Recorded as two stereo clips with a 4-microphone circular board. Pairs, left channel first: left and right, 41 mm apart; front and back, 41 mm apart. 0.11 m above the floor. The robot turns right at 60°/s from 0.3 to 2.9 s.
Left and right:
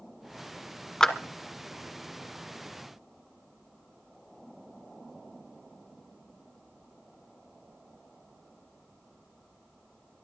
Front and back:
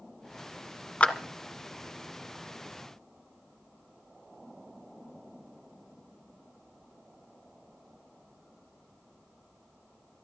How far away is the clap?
About 1.2 m.